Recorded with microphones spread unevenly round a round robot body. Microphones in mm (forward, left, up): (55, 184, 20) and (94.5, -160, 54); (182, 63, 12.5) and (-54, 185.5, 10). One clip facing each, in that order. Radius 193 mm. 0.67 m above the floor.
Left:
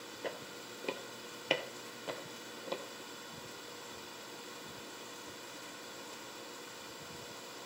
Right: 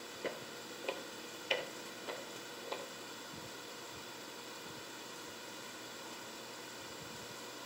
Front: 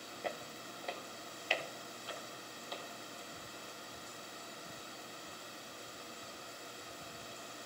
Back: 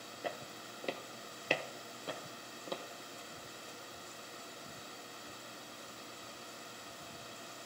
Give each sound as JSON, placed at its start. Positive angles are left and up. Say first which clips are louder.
{"t": 0.2, "sound": "footsteps", "louder": "even, even", "azimuth_deg": -125, "distance_m": 0.6}